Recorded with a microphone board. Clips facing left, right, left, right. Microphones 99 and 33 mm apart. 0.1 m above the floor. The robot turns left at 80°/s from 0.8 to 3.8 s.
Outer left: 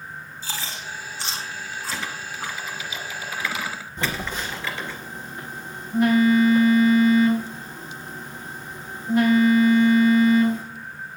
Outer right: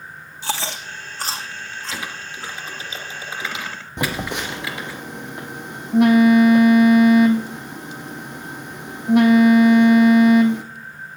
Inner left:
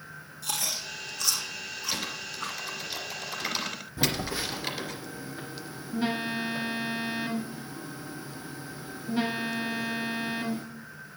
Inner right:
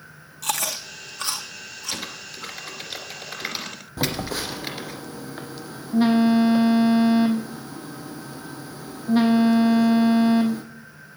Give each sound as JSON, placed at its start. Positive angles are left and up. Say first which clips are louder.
{"t": 0.4, "sound": "chewing", "louder": "outer right 8 dB, inner right 5 dB", "side_deg": -75, "distance_m": 1.8}
{"t": 1.9, "sound": "typing on a keyboard", "louder": "even, inner right 2 dB", "side_deg": -5, "distance_m": 2.0}
{"t": 4.0, "sound": "a phone buzzing", "louder": "outer right 4 dB, inner right 3 dB", "side_deg": -75, "distance_m": 1.5}